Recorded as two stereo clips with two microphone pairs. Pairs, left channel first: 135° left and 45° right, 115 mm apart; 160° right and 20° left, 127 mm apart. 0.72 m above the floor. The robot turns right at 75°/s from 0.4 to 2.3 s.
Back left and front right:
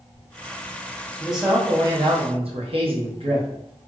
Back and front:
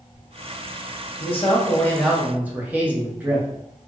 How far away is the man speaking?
About 0.9 m.